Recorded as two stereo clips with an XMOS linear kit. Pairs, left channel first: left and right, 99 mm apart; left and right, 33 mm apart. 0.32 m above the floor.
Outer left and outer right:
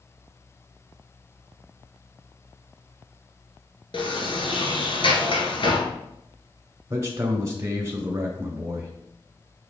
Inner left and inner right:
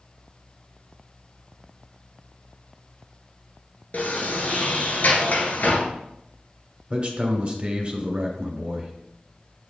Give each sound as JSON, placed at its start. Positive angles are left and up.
{"t": 3.9, "sound": "a sliding door", "side_deg": 60, "distance_m": 1.2}
{"t": 6.9, "sound": "a man speaking", "side_deg": -30, "distance_m": 1.4}